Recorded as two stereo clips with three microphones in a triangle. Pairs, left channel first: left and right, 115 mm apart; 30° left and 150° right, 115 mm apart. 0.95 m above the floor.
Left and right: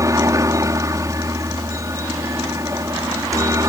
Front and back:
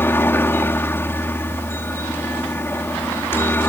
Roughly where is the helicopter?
Ahead right.